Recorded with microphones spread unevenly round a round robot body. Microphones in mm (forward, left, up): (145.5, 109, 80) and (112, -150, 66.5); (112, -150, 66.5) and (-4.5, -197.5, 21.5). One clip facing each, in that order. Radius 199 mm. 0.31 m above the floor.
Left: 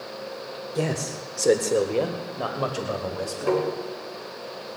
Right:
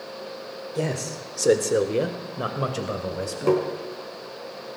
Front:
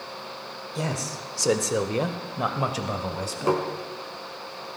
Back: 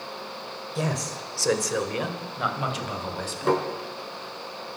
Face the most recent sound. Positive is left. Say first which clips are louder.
# right 2 dB, back 1 dB
turn(degrees=-65)